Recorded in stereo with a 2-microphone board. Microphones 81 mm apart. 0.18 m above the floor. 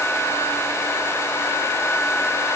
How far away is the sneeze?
I don't hear a sneeze.